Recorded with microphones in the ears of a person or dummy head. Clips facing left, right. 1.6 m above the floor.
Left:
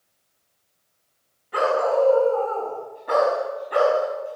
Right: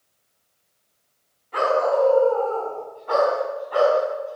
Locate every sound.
1.5 s a dog barking: 10° left (ahead or behind), 6.5 m; by 4.4 s 30° left (ahead or behind), 5.5 m